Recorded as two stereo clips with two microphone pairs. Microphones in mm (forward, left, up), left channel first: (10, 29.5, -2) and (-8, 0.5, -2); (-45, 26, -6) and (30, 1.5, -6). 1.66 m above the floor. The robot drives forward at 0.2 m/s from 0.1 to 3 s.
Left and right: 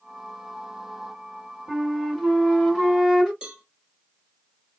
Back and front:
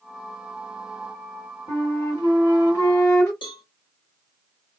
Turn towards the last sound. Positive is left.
turn(degrees=175)